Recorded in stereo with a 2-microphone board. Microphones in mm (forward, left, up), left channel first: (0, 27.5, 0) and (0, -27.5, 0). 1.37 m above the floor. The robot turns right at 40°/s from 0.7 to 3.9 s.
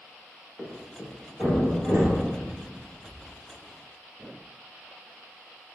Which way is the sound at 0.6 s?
Centre (ahead or behind).